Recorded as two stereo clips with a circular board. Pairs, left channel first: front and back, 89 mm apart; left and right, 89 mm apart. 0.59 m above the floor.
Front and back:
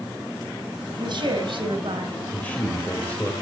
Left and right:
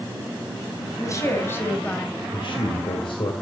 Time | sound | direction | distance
1.0 | a woman speaking | 145° left | 3.5 m
2.3 | a man speaking | 70° left | 2 m